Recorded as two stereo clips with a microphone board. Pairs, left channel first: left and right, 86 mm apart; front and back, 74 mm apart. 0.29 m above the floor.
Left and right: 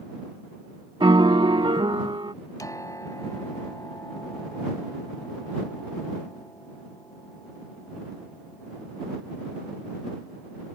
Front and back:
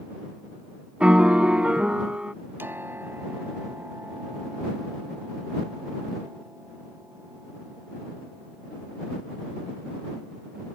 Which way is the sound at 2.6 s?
130° left.